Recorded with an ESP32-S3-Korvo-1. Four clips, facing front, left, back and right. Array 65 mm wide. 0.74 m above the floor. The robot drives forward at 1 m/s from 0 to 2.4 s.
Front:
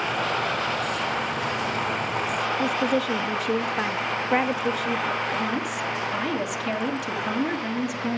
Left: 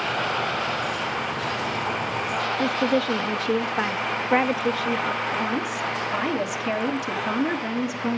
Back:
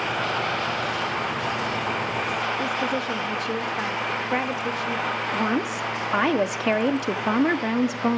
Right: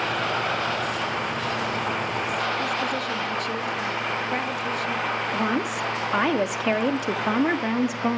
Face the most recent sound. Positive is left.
turn(degrees=-140)